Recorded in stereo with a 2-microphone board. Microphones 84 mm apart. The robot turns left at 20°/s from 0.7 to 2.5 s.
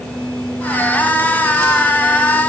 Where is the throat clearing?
No throat clearing in this recording.